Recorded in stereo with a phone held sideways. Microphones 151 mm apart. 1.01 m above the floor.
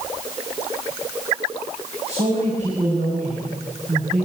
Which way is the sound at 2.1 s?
45° right (ahead or behind).